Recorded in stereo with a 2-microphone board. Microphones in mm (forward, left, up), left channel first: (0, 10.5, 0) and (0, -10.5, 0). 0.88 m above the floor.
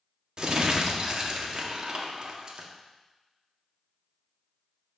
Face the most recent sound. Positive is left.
turn(degrees=-35)  # may be behind; listen again after turning